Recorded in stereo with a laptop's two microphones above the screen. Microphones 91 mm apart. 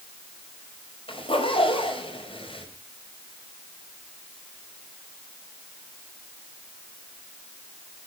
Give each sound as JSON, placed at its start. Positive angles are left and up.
{"t": 1.1, "sound": "a zipper", "side_deg": 85, "distance_m": 6.0}